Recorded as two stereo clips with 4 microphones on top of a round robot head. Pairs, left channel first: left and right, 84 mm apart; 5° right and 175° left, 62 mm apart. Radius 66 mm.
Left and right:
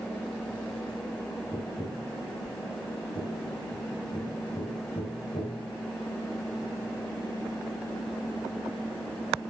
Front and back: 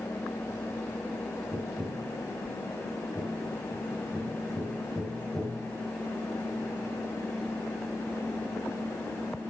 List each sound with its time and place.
1.5 s tapping: 85° left, 4.5 m